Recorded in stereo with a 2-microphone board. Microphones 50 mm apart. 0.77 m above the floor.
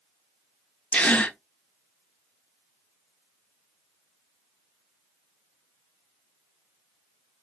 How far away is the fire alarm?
I don't hear a fire alarm.